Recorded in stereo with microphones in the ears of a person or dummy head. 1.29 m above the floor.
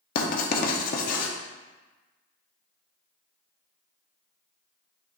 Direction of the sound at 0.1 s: 45° left (ahead or behind).